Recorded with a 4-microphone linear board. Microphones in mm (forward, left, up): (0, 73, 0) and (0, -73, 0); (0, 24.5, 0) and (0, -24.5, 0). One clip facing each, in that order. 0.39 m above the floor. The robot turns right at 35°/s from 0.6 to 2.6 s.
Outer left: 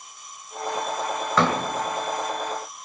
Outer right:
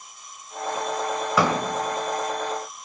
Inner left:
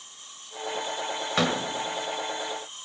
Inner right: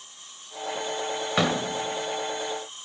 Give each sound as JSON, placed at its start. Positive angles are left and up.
{"t": 1.4, "sound": "a door slam", "side_deg": -10, "distance_m": 1.4}